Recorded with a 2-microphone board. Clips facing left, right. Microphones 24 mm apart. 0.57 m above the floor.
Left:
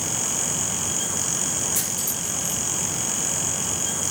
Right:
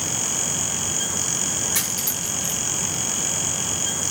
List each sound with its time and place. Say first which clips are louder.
1.8 s cutlery clinking: right 2 dB; 75° right (ahead or behind), 4 m